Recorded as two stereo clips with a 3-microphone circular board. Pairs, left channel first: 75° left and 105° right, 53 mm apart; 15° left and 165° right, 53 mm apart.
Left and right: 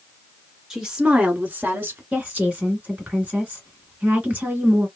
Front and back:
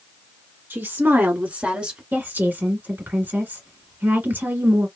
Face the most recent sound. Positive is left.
turn(degrees=-150)